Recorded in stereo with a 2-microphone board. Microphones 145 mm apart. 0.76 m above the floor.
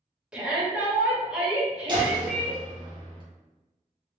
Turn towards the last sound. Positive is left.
turn(degrees=-35)  # may be behind; listen again after turning